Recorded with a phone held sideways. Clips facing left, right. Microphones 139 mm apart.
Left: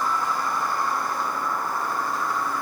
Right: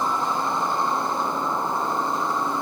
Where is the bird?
I don't hear a bird.